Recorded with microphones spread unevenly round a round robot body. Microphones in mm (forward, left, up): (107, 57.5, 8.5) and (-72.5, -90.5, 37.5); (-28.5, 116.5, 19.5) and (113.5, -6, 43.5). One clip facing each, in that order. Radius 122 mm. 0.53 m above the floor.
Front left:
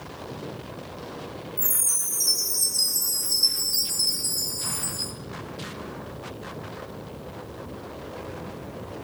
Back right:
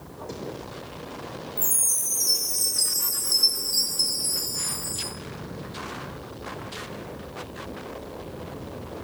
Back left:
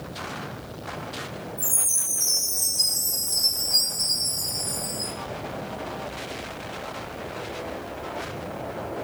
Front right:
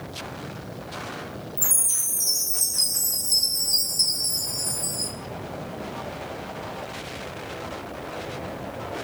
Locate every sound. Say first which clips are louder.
1.6 s a chime: back right 1 dB, back left 1 dB; 50° right, 3 m